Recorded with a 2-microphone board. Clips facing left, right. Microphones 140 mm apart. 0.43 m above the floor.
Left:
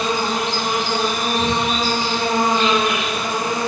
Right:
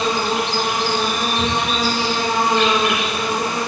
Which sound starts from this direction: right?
An insect, at 0.0 s.